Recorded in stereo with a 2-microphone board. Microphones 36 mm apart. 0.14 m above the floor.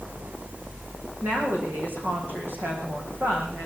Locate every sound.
1.2 s a woman speaking: 65° right (ahead or behind), 7 m